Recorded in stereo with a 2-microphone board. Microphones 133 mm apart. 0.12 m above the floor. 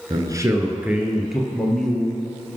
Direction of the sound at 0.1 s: 30° right (ahead or behind).